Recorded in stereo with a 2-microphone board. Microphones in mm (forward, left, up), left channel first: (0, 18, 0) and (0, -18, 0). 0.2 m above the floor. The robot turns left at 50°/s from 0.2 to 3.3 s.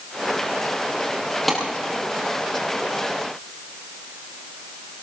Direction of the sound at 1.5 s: 5° left (ahead or behind).